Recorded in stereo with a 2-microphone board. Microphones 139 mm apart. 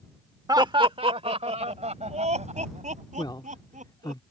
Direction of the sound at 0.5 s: 30° right (ahead or behind).